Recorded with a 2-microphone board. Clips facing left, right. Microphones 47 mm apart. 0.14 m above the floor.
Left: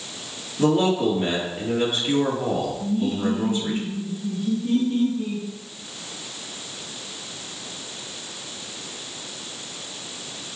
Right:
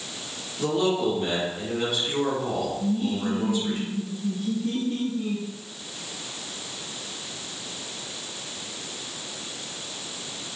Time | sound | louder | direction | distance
0.6 | a man speaking | left 4 dB | 35° left (ahead or behind) | 3.5 m
2.8 | laughter | left 2 dB | 15° right (ahead or behind) | 2.5 m